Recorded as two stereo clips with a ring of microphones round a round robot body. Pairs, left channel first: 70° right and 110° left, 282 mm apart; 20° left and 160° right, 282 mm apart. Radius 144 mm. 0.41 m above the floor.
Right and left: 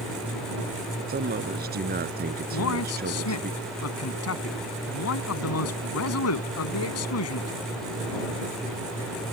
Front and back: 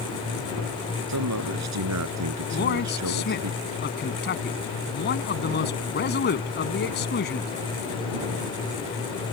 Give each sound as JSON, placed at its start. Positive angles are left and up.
{"t": 1.1, "sound": "a man speaking", "azimuth_deg": 170}
{"t": 2.5, "sound": "a man speaking", "azimuth_deg": -30}